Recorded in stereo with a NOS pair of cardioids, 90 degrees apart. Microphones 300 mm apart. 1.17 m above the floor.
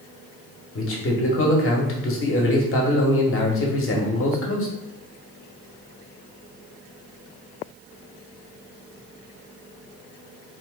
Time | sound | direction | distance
0.8 | a man speaking | 50° left | 1.1 m